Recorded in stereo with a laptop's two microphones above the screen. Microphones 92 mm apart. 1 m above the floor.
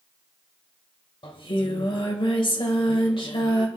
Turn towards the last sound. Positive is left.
turn(degrees=70)  # may be behind; listen again after turning